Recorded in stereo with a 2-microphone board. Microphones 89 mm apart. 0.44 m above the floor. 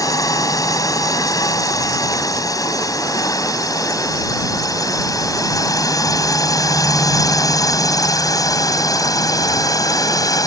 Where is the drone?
40° left (ahead or behind); by 10.5 s 45° left (ahead or behind).